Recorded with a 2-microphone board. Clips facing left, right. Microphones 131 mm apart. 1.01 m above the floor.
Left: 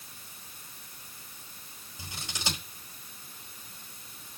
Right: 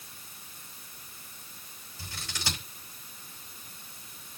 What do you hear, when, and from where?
2.0 s scissors: 20° left (ahead or behind), 4.5 m